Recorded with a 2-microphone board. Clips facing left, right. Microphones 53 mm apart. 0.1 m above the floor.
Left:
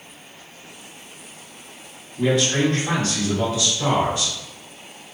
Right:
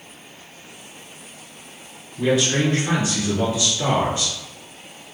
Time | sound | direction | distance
2.2 | a man speaking | centre (ahead or behind) | 1.8 m